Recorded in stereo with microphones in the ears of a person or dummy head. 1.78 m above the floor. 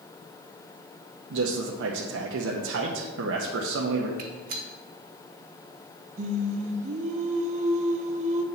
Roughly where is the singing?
Right.